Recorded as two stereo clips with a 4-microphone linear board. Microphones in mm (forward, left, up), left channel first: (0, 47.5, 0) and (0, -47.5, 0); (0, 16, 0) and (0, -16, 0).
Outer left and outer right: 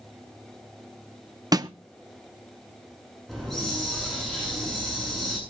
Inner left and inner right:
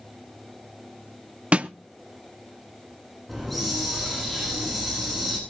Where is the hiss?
5° left (ahead or behind), 8.5 m.